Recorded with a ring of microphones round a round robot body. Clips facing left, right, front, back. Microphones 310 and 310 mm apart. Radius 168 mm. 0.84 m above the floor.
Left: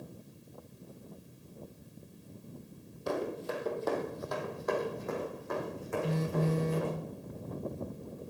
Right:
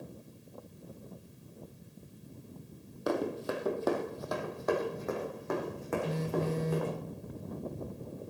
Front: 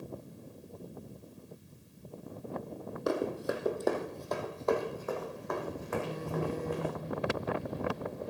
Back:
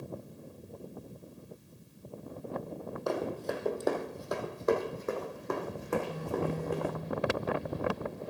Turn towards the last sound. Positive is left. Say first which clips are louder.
# left 3 dB, back 1 dB
turn(degrees=65)